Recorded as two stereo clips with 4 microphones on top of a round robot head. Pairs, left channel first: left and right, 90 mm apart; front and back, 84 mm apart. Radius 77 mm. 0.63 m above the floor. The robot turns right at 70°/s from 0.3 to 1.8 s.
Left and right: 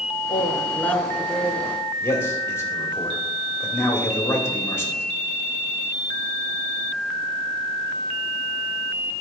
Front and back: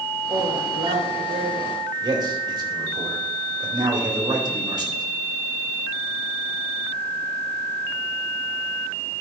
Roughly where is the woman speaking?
Behind left.